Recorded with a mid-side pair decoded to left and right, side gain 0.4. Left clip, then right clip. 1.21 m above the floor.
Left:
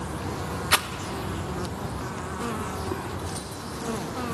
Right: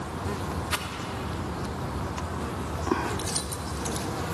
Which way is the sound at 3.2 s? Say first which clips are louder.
Right 2 dB; 65° right.